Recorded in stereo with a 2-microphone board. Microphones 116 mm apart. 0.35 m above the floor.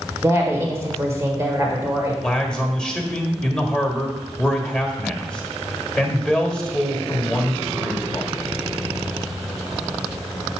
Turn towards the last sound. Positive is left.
turn(degrees=5)  # may be behind; listen again after turning